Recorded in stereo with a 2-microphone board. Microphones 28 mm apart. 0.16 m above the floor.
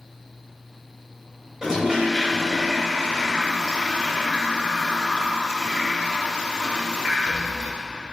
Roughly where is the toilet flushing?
Right.